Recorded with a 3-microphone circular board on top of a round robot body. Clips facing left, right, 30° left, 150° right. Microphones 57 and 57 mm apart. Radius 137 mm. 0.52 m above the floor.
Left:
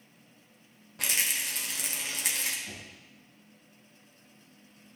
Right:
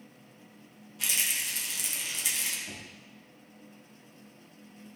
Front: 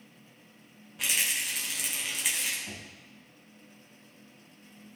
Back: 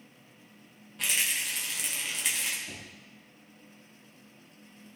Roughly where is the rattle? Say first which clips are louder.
Left 1 dB, even; behind left.